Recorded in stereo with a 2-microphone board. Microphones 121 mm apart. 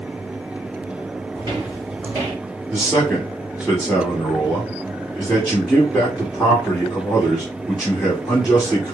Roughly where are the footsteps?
Right.